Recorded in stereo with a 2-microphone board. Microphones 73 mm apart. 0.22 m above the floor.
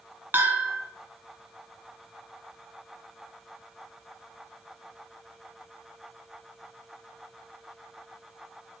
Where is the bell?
25° right (ahead or behind), 1.6 m.